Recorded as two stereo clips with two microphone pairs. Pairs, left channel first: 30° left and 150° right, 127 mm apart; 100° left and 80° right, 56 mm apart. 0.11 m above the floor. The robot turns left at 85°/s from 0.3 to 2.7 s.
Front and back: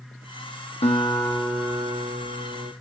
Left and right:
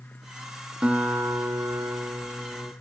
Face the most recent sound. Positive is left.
turn(degrees=-165)